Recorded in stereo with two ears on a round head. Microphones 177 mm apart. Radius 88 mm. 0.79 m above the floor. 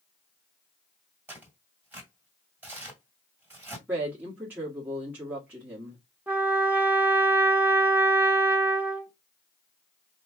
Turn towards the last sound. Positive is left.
turn(degrees=-10)  # may be behind; listen again after turning